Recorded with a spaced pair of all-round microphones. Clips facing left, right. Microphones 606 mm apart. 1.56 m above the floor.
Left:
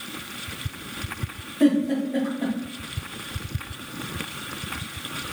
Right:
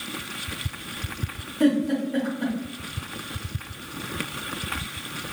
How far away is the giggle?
About 1.1 m.